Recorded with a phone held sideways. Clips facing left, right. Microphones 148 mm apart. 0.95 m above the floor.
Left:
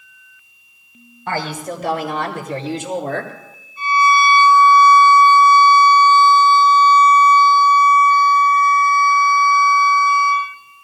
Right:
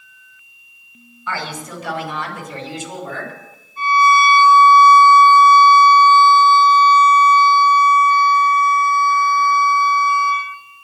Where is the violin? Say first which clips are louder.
Right 1 dB; 55° right (ahead or behind), 7 m.